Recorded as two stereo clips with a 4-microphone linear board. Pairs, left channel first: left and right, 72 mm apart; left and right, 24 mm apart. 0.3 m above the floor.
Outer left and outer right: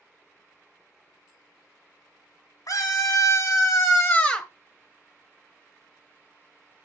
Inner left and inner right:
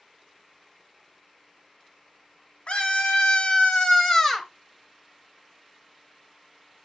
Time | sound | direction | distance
2.7 | a scream | 50° left (ahead or behind) | 2 m